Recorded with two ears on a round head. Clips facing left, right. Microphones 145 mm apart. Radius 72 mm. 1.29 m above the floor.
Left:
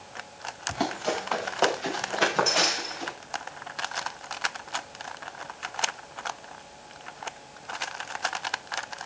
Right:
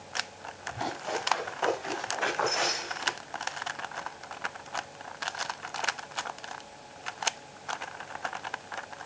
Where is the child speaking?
I don't hear a child speaking.